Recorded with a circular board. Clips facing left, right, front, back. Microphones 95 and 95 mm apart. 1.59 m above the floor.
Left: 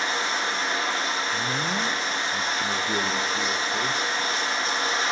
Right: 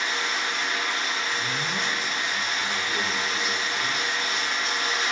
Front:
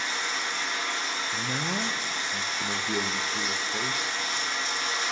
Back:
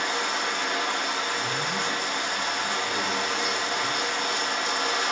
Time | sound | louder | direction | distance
0.0 | running water | left 2 dB, back 5 dB | 150° left | 0.8 m
1.3 | a man speaking | left 2 dB, back 2 dB | 45° left | 0.6 m